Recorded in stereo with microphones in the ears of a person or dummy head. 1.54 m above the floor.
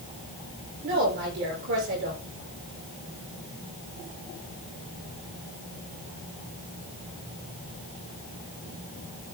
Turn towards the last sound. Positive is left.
turn(degrees=-60)  # may be behind; listen again after turning